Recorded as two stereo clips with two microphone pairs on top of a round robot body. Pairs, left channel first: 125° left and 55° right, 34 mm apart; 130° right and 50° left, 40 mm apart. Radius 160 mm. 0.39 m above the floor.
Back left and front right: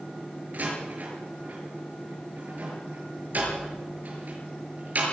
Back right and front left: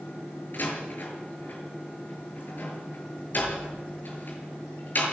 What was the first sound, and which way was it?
A door slam, 95° right.